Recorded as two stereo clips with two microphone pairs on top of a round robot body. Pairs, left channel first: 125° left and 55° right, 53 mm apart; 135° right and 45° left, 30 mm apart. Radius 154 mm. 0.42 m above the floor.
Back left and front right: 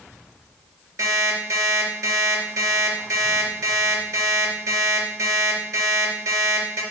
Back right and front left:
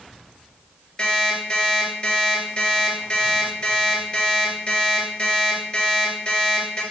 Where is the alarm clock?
70° right, 4 m.